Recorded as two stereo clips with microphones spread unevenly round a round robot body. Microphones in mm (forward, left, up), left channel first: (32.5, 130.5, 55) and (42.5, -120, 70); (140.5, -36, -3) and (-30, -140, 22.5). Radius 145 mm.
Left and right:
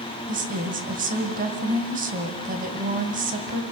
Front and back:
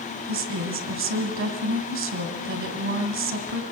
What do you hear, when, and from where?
0.3 s a woman speaking: 145° right, 2.5 m